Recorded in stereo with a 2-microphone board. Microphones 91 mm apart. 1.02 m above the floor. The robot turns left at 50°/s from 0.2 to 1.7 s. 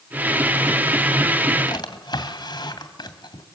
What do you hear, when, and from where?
1.7 s a drawer: 50° left (ahead or behind), 2.5 m